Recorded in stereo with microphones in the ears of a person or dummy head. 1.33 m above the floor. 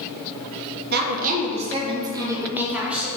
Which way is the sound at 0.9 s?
50° right (ahead or behind).